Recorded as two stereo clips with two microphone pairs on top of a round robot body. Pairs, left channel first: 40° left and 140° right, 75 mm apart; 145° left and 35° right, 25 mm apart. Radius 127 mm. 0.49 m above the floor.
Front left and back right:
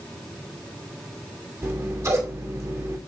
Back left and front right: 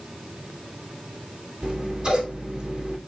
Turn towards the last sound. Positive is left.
turn(degrees=-85)